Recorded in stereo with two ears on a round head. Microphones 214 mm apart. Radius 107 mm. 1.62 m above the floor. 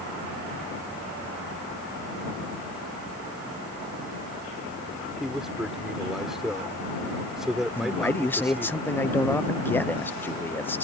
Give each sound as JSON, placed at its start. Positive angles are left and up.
{"t": 5.2, "sound": "a man speaking", "side_deg": 0}
{"t": 7.8, "sound": "a man speaking", "side_deg": 10}